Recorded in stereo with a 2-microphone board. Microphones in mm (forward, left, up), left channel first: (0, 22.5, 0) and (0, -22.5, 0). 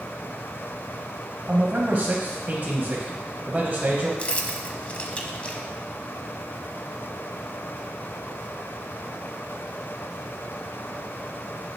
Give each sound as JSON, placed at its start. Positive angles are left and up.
{"t": 1.5, "sound": "a man speaking", "side_deg": -30, "distance_m": 1.6}
{"t": 4.2, "sound": "keys jangling", "side_deg": 25, "distance_m": 0.9}